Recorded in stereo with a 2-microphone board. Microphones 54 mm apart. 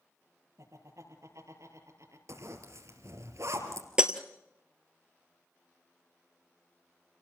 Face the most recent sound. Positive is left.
turn(degrees=-15)  # may be behind; listen again after turning